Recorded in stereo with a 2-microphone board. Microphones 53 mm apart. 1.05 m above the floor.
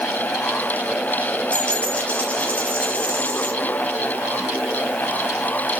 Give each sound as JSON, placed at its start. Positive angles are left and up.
{"t": 1.5, "sound": "a dropped coin", "side_deg": 25, "distance_m": 4.0}